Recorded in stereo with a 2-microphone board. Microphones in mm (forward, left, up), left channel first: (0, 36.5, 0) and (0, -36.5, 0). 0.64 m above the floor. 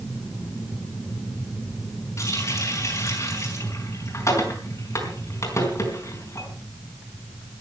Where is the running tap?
45° left (ahead or behind), 4.5 m.